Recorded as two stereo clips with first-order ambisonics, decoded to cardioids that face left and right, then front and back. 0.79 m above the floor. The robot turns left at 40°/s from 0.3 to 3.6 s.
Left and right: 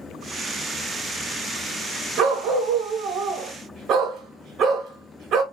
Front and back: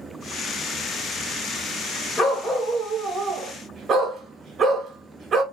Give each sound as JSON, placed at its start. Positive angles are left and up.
{"t": 2.2, "sound": "a dog barking", "azimuth_deg": -65, "distance_m": 0.7}